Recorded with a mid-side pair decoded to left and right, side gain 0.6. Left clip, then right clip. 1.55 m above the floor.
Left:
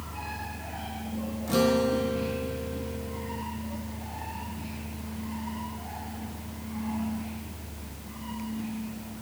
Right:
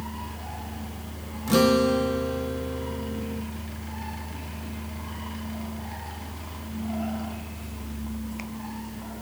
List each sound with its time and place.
0.0 s a fan: 65° right, 6 m
1.5 s a guitar: 30° right, 1.8 m